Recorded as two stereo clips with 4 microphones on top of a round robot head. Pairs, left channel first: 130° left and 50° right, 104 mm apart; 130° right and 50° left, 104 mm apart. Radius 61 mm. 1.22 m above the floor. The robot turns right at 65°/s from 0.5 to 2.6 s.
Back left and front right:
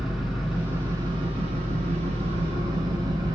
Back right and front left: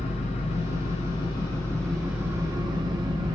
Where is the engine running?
135° right, 0.8 m; by 3.4 s straight ahead, 0.8 m.